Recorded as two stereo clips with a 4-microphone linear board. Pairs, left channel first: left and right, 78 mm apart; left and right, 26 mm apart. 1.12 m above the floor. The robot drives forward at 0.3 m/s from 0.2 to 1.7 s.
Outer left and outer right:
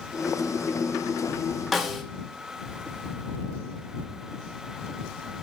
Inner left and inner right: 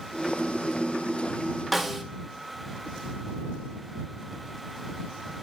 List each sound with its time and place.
1.7 s a snare drum: centre (ahead or behind), 2.0 m